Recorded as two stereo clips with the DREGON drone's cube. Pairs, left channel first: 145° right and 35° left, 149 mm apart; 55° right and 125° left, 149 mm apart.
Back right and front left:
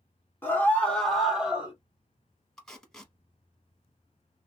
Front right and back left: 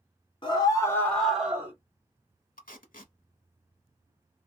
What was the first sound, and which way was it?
A scream, 80° right.